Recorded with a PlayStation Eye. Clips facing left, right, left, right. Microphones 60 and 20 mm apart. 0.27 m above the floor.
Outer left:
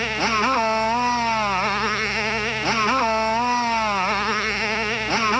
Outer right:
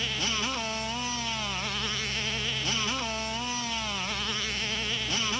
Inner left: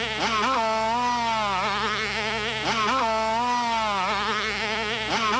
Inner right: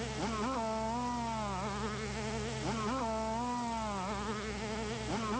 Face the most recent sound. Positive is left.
turn(degrees=50)  # may be behind; listen again after turning